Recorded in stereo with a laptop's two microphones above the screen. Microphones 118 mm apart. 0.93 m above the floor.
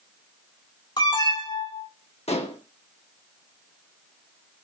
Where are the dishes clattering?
60° left (ahead or behind), 0.9 m.